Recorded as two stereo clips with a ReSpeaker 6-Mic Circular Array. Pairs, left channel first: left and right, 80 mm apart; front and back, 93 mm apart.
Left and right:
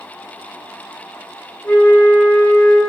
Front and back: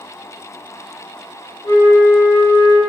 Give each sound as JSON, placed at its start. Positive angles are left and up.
{"t": 1.6, "sound": "a flute", "azimuth_deg": 50, "distance_m": 1.3}